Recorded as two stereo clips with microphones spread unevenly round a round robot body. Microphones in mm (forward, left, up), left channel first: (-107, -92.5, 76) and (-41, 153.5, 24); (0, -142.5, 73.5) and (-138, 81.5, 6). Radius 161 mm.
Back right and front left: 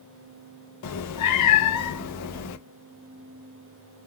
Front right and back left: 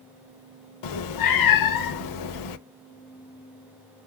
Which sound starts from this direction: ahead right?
A cat meowing, at 0.8 s.